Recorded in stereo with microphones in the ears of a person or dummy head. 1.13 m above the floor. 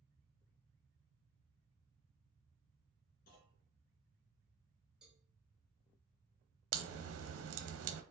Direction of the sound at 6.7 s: 70° right (ahead or behind).